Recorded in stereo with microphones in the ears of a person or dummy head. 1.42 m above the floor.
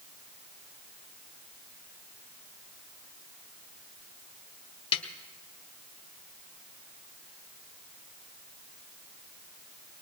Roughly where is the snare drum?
Left.